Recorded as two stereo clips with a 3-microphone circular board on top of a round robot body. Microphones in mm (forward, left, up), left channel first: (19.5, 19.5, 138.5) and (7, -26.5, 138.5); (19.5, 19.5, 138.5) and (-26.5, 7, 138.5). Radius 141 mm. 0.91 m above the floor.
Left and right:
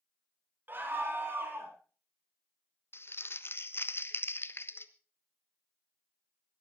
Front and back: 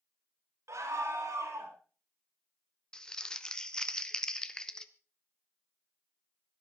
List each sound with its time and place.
0.7 s a scream: 150° right, 4 m; by 1.8 s 145° right, 4.5 m
2.9 s crumpling: 90° left, 1.4 m